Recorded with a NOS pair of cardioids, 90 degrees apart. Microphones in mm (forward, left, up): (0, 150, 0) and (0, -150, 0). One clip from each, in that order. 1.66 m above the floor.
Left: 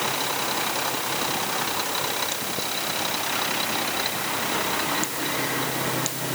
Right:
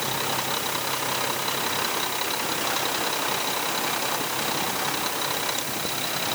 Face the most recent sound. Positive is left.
No sound to turn to.